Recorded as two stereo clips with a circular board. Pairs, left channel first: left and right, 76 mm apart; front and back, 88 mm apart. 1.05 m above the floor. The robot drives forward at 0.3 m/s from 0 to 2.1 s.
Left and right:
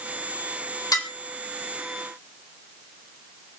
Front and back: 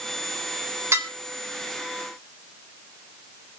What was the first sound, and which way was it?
Dishes clattering, 125° left.